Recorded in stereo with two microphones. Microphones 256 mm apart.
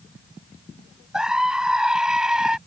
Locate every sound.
1.1 s a scream: centre (ahead or behind)